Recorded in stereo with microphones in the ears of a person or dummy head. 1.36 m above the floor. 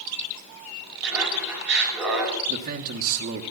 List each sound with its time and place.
1.0 s laughter: centre (ahead or behind), 6 m
2.5 s a man speaking: 45° right (ahead or behind), 1.2 m